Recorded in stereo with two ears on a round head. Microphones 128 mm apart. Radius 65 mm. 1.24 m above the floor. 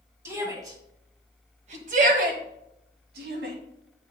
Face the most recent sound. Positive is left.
turn(degrees=-75)  # may be behind; listen again after turning